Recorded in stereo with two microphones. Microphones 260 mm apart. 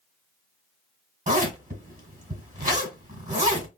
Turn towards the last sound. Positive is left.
turn(degrees=-30)  # may be behind; listen again after turning